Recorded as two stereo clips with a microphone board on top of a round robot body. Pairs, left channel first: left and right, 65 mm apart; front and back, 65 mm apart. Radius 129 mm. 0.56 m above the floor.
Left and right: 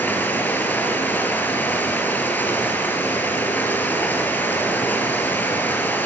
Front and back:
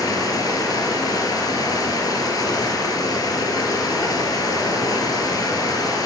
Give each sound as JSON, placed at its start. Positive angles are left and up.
{"t": 0.0, "sound": "running water", "azimuth_deg": 25, "distance_m": 5.5}